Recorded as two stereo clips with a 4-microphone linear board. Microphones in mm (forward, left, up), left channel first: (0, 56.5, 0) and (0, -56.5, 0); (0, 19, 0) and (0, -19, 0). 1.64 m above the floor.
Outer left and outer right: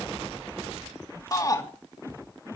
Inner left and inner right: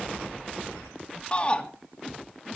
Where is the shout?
30° left (ahead or behind), 3 m.